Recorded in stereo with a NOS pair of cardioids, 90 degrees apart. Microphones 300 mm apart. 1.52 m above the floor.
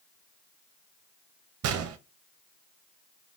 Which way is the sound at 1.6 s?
55° right.